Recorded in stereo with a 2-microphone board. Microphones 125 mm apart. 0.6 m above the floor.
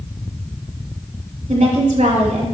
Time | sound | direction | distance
1.5 | a woman speaking | 65° right (ahead or behind) | 2.5 m